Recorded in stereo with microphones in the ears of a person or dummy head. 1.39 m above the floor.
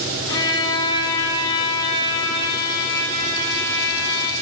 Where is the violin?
15° left (ahead or behind), 1.2 m.